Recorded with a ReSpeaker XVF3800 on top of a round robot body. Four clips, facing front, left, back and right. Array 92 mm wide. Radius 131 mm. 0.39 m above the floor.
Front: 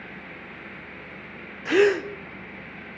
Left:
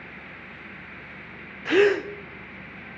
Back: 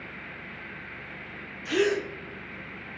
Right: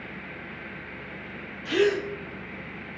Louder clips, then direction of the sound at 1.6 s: Left 4 dB, front 6 dB; 55° left.